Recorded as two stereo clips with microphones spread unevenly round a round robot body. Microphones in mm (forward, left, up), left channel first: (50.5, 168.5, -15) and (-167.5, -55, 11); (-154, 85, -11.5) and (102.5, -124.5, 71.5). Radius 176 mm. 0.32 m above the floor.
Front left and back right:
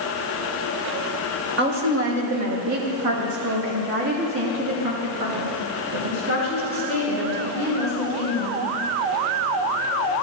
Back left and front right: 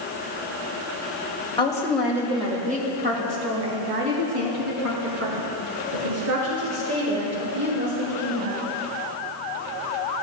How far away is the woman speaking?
About 1.4 m.